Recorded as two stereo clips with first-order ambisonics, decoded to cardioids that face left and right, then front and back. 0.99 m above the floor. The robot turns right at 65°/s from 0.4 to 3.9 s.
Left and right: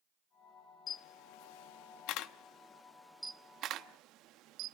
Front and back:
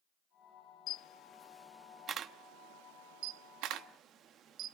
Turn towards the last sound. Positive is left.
turn(degrees=-130)